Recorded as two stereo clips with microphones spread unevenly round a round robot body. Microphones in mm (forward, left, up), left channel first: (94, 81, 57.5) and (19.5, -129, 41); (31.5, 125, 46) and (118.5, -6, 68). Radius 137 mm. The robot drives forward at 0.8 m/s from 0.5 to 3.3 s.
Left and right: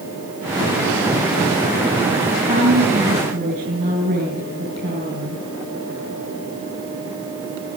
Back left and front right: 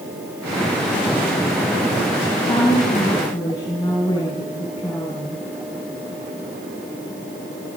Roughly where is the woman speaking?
Behind.